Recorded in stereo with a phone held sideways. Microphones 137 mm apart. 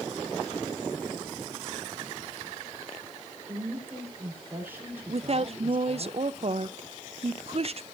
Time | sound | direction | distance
3.5 | a woman speaking | 15° right (ahead or behind) | 4 m
5.1 | a woman speaking | 45° right (ahead or behind) | 0.6 m